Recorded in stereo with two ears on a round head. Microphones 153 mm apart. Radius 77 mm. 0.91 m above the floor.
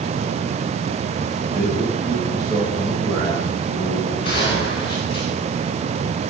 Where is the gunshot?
30° left (ahead or behind), 9 m.